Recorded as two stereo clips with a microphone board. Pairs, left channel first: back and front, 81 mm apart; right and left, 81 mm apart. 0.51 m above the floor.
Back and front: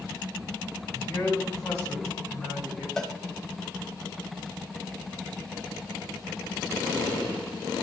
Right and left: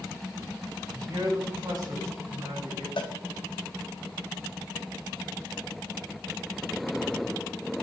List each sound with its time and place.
0.9 s a man speaking: 125° left, 4.5 m; by 2.9 s 140° left, 6 m
3.0 s a cowbell: 95° right, 0.8 m